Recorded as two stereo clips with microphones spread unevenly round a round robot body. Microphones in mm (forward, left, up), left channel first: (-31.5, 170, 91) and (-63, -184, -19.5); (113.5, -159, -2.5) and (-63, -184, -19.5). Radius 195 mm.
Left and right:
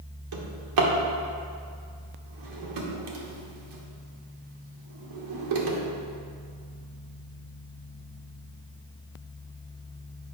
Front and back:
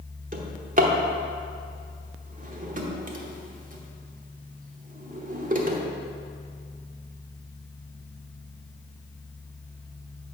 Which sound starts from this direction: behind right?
A drawer, at 0.3 s.